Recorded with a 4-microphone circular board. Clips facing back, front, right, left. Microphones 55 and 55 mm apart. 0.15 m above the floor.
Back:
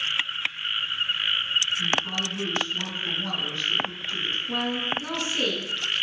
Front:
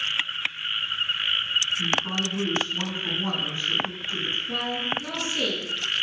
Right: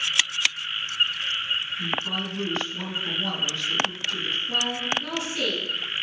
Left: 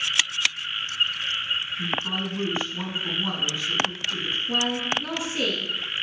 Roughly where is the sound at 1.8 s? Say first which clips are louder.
Front 1 dB, left 1 dB; ahead left.